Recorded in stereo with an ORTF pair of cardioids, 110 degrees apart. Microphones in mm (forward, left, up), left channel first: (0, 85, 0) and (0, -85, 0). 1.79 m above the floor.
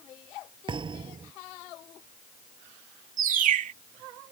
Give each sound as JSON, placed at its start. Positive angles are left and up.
{"t": 0.7, "sound": "a thud", "azimuth_deg": -30}
{"t": 3.2, "sound": "a bird", "azimuth_deg": -55}